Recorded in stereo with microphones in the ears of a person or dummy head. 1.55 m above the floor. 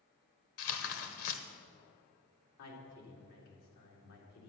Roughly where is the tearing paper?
Left.